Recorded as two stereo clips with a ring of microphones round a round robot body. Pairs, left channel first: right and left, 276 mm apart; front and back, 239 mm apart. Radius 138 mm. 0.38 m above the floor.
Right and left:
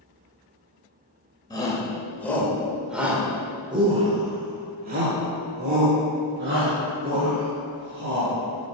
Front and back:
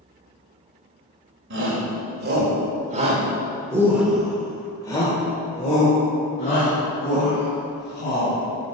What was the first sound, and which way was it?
A shout, 165° right.